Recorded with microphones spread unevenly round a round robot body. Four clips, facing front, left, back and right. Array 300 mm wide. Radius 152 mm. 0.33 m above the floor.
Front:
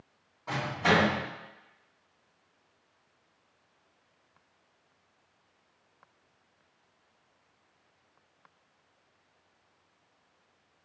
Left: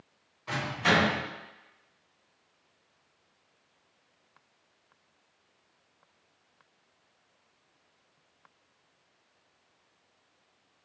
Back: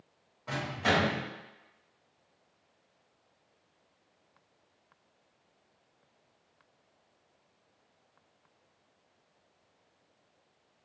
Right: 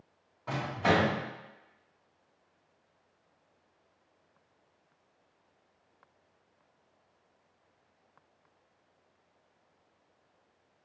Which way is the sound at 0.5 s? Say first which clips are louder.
Even, front 3 dB; 90° right.